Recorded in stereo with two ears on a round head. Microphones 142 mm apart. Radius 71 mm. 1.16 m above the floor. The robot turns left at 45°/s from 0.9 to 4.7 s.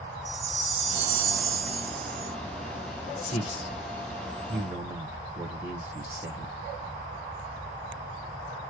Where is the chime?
50° right, 0.7 m; by 2.3 s 115° right, 0.7 m.